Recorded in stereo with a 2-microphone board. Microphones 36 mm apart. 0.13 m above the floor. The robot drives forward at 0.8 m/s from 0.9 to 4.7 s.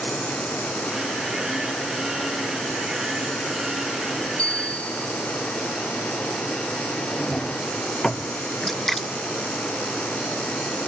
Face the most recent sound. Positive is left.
turn(degrees=10)  # may be behind; listen again after turning